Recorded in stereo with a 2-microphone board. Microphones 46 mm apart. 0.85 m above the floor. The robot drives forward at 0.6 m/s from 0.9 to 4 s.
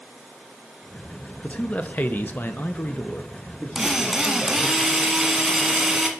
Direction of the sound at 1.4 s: 25° left (ahead or behind).